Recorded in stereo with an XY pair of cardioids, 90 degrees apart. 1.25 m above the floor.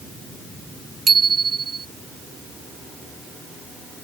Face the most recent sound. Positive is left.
turn(degrees=-45)